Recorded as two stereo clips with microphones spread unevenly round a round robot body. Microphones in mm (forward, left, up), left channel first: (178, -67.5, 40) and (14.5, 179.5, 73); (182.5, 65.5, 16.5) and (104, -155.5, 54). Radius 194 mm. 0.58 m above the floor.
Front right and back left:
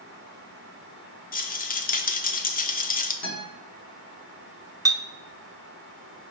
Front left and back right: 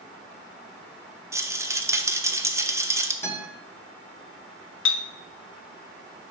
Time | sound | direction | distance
1.3 | a rattle | 25° right | 0.9 m
3.2 | a guitar | 10° right | 4 m
4.8 | a clink | 40° left | 0.7 m